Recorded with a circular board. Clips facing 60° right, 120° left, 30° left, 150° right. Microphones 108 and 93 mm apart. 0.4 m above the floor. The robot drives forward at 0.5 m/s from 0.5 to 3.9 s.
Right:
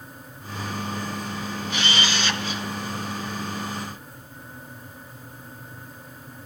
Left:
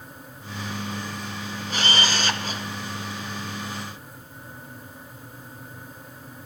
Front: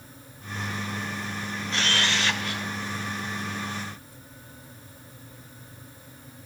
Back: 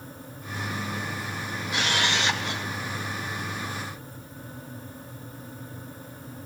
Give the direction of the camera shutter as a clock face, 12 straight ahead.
7 o'clock.